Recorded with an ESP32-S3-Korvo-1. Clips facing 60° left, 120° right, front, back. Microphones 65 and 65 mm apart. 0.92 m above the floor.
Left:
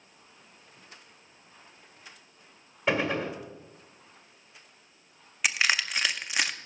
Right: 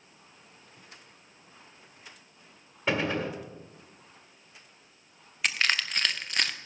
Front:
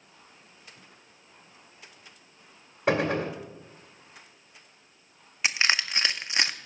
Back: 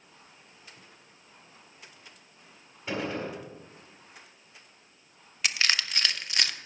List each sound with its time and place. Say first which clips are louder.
2.9 s a gunshot: left 1 dB, front 7 dB; 25° right, 1.6 m
5.4 s crushing: left 1 dB, front 3 dB; 10° right, 0.6 m